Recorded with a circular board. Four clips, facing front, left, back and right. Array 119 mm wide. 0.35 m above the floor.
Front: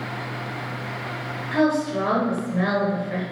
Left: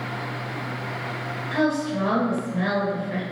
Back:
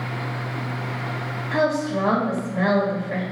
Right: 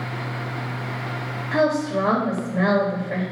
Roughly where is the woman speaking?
Right.